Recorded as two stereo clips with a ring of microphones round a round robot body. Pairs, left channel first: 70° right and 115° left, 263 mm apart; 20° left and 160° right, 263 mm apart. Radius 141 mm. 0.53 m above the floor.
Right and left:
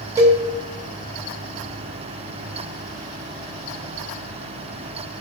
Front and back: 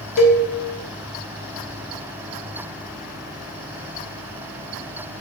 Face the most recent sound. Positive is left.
turn(degrees=35)